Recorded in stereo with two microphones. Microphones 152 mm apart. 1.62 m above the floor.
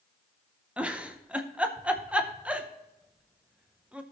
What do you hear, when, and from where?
0.8 s a giggle: 5° right (ahead or behind), 0.7 m